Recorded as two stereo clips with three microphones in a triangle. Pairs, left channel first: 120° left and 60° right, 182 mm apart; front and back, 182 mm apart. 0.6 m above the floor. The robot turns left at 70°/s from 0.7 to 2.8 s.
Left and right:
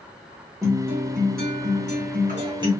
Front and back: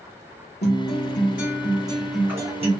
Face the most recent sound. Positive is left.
turn(degrees=-135)